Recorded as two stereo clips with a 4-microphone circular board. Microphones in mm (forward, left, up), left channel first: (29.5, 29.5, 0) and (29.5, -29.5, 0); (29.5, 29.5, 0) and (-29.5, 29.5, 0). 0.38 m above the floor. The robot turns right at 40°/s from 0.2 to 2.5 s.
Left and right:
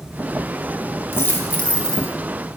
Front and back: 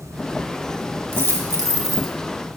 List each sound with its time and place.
1.1 s a dropped coin: 135° left, 1.2 m; by 2.1 s 175° left, 1.2 m